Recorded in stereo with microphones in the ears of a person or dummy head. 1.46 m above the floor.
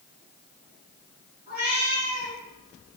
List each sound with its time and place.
1.5 s a cat meowing: 35° right (ahead or behind), 2 m